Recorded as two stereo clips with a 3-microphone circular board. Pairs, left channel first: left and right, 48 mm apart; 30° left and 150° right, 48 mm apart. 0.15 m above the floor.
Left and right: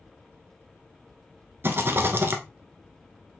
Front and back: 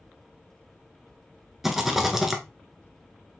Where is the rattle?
65° right, 0.9 m.